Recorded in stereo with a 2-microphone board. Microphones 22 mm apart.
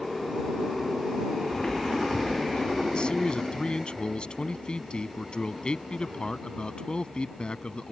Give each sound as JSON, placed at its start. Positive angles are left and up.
{"t": 1.5, "sound": "footsteps", "side_deg": 30}
{"t": 2.9, "sound": "a man speaking", "side_deg": 55}